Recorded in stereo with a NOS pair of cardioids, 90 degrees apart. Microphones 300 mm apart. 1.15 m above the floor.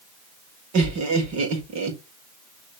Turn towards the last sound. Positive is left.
turn(degrees=-70)